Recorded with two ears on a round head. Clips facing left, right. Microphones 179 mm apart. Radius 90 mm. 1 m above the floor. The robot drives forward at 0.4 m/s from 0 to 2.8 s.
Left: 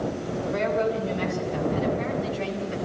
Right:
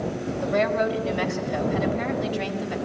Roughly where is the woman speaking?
Right.